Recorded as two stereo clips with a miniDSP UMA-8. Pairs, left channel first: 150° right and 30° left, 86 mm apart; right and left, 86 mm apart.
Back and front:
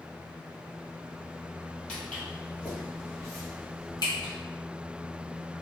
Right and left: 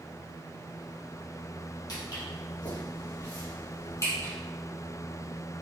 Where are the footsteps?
75° right, 1.8 m; by 4.3 s 135° right, 1.9 m.